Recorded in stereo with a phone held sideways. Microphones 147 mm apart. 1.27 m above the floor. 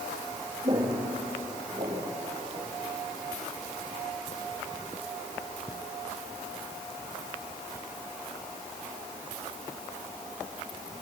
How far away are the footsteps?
About 5.5 m.